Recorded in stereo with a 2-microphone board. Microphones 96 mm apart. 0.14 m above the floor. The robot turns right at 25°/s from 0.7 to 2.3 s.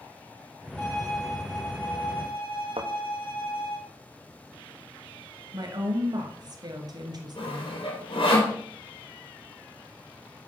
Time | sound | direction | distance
0.8 | a violin | 20° left | 2 m
2.8 | a thud | 80° right | 1.3 m
5.5 | a woman speaking | 45° right (ahead or behind) | 1.8 m
7.4 | sawing | 65° left (ahead or behind) | 4.5 m